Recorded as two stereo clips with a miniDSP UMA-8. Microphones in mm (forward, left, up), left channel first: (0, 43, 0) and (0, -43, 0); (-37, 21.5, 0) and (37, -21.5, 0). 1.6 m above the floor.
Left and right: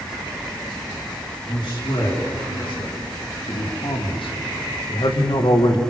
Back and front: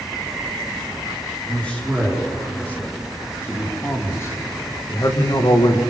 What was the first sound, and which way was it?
A man speaking, 75° left.